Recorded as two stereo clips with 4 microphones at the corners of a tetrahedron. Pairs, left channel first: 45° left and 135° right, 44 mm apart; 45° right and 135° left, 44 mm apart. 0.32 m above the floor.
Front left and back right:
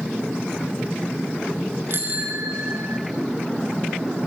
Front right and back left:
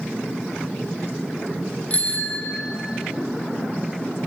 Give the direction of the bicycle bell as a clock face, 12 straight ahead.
3 o'clock.